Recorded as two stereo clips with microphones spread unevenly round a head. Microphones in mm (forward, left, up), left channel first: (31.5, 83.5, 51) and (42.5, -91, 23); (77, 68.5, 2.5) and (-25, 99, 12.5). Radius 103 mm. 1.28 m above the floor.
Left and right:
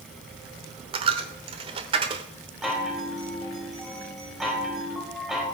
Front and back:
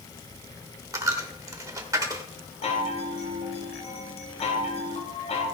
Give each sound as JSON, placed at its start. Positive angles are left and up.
{"t": 0.9, "sound": "a dropped coin", "azimuth_deg": -150, "distance_m": 1.2}
{"t": 2.6, "sound": "a chime", "azimuth_deg": 5, "distance_m": 3.5}